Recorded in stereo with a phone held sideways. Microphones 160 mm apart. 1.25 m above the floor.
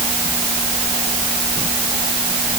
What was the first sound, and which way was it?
Only background noise.